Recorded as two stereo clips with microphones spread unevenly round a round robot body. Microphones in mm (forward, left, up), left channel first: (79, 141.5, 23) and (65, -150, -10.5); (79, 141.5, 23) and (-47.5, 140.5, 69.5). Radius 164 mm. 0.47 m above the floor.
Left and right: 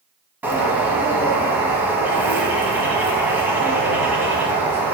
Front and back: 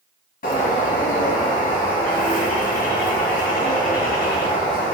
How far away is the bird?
About 1.0 m.